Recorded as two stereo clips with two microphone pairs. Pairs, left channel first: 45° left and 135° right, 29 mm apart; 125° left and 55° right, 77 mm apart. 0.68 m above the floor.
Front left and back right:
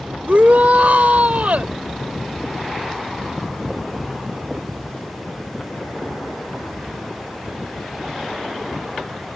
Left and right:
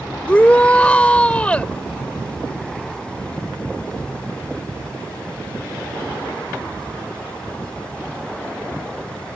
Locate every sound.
0.3 s a shout: 165° right